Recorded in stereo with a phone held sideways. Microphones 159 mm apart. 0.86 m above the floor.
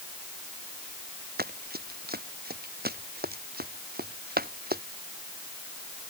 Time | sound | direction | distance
1.4 | running footsteps | 75° right (ahead or behind) | ?